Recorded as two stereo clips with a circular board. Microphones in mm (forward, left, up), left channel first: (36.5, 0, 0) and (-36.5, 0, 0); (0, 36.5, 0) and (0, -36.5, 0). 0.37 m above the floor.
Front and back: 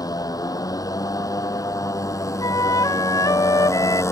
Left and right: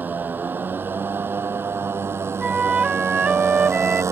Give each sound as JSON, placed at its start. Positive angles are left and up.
{"t": 0.0, "sound": "a motorcycle", "azimuth_deg": -25}
{"t": 2.4, "sound": "a flute", "azimuth_deg": -20}